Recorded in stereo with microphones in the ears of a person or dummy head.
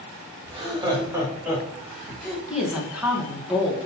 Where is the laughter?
35° right (ahead or behind), 3 m; by 2.4 s centre (ahead or behind), 4 m.